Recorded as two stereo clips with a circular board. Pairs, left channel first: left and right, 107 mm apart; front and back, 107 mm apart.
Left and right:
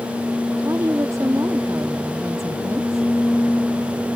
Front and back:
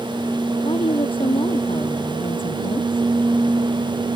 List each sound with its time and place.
0.6 s a woman speaking: 30° right